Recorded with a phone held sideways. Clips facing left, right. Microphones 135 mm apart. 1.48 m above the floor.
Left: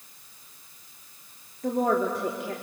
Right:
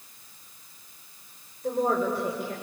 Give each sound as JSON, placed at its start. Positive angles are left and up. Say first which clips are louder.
{"t": 1.6, "sound": "a woman speaking", "louder": "left 1 dB", "side_deg": 75, "distance_m": 3.5}